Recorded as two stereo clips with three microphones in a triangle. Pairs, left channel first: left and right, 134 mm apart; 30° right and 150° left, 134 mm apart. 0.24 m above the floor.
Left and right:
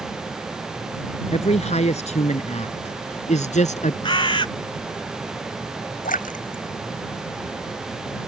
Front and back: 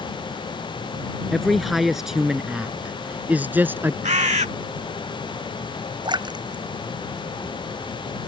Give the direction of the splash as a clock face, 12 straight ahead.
9 o'clock.